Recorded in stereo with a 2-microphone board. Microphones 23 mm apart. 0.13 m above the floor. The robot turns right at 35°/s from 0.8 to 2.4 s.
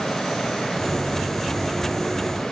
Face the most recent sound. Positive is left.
No sound to turn to.